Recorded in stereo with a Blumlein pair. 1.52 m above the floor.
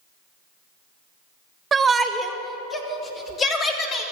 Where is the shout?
15° right, 1.6 m; by 4.0 s 30° left, 3.5 m.